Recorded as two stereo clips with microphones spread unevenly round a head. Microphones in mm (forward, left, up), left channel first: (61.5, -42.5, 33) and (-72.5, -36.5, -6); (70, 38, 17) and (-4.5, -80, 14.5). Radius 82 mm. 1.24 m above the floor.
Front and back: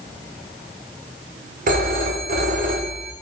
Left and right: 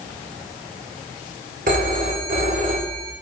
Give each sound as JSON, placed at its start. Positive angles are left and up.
{"t": 1.7, "sound": "a phone ringing", "azimuth_deg": -165, "distance_m": 2.5}